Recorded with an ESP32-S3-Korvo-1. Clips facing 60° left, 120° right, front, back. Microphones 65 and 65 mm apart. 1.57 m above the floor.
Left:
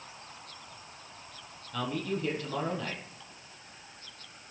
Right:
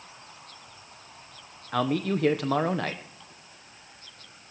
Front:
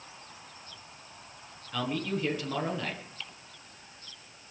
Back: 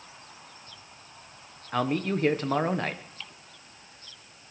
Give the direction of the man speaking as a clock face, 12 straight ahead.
4 o'clock.